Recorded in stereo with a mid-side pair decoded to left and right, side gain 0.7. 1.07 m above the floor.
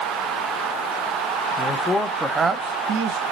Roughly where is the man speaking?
Ahead left.